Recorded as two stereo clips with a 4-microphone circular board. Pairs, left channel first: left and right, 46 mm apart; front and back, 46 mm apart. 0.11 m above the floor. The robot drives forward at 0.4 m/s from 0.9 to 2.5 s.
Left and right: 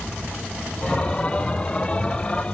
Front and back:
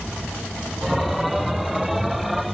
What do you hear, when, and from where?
Only background noise.